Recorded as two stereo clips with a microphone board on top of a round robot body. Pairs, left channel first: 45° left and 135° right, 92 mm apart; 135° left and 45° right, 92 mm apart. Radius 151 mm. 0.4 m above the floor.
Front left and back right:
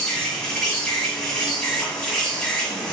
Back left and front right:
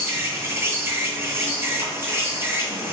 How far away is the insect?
About 2 m.